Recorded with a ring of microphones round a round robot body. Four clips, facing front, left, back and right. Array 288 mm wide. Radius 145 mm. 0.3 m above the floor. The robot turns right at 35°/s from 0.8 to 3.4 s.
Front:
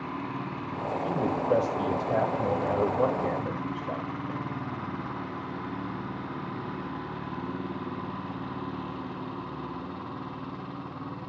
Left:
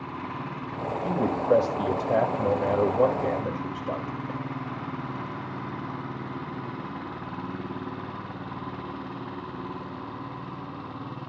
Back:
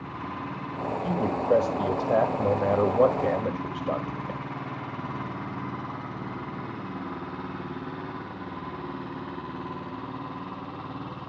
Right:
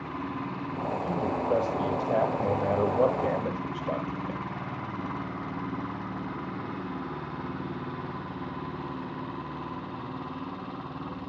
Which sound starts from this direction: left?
A man speaking, at 1.0 s.